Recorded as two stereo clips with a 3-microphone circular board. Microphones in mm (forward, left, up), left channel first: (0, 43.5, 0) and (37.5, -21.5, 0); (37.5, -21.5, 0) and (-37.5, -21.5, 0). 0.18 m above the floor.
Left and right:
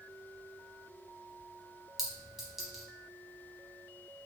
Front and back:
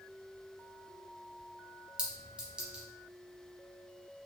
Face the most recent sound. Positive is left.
turn(degrees=-135)